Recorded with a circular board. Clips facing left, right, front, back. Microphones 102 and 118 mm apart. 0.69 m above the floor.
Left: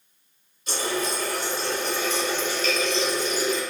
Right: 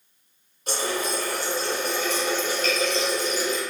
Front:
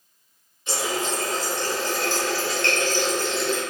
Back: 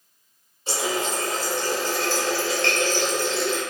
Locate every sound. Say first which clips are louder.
0.7 s a running tap: even, back 1 dB; 125° right, 1.4 m